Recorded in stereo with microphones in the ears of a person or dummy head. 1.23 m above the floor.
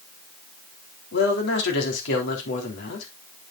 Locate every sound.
1.1 s a man speaking: 65° left (ahead or behind), 3.5 m